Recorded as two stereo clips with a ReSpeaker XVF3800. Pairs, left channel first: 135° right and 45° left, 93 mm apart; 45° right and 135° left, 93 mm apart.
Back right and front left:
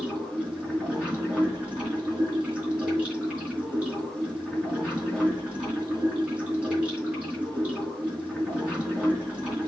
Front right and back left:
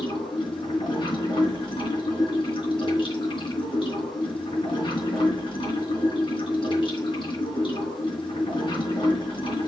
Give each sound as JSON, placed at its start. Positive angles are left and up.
{"t": 0.0, "sound": "running water", "azimuth_deg": -30, "distance_m": 5.0}